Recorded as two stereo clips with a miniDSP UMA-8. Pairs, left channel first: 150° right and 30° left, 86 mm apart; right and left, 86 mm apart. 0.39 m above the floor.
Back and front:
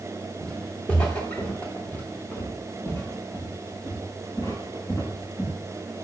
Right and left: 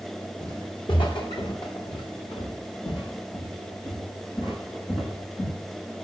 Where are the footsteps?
70° right, 5.5 m; by 5.5 s 100° right, 8 m.